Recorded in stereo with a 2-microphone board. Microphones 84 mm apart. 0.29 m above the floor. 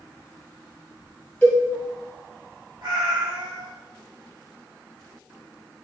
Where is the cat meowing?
65° right (ahead or behind), 1.1 m.